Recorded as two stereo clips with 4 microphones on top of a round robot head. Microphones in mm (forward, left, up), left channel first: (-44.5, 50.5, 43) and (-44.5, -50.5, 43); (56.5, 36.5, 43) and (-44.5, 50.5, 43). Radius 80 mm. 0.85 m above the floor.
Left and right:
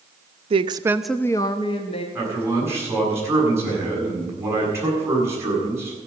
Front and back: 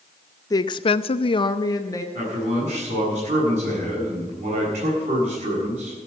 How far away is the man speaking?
About 8 m.